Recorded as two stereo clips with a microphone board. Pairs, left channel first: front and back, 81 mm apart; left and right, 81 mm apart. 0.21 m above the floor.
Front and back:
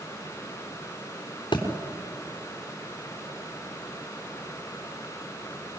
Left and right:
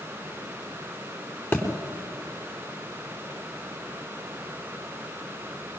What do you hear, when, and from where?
1.5 s a thud: 25° left, 3.5 m